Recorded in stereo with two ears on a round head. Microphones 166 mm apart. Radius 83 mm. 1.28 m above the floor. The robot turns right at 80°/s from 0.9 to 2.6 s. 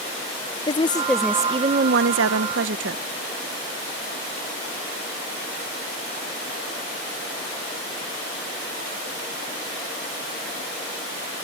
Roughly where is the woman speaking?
Behind left.